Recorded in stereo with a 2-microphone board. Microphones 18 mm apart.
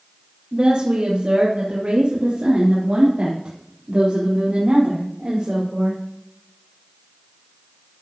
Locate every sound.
0.5 s a woman speaking: 50° right (ahead or behind), 3 m; by 6.0 s 60° right (ahead or behind), 5 m